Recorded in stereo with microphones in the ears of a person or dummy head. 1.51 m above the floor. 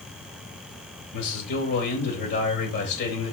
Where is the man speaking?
60° left (ahead or behind), 3.5 m.